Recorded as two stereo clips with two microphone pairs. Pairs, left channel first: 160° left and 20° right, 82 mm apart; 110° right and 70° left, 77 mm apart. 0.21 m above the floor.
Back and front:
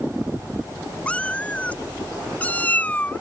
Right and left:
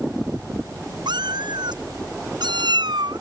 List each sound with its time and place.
1.1 s a cat meowing: 90° left; by 3.2 s 95° left